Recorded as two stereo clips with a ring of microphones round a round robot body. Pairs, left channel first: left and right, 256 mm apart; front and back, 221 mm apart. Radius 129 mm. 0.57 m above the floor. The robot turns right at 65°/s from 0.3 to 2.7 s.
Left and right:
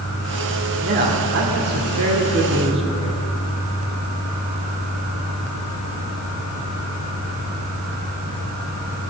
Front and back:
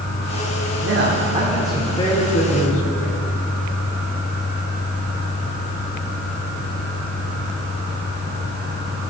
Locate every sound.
0.8 s a man speaking: 150° right, 1.7 m; by 3.3 s 25° right, 1.7 m